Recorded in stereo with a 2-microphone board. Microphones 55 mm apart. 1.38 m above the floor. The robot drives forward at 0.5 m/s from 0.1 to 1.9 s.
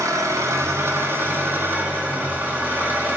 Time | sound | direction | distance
0.0 | an engine running | 80° right | 0.8 m